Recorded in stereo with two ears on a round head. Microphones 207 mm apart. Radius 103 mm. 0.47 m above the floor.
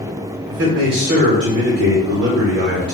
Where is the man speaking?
45° right (ahead or behind), 1.2 m.